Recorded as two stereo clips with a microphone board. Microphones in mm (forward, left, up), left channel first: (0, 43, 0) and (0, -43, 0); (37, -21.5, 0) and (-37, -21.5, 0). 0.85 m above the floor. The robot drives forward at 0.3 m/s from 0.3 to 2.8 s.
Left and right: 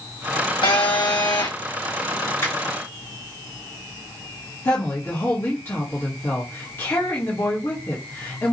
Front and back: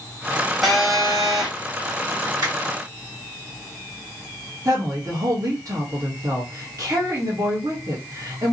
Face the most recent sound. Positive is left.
turn(degrees=150)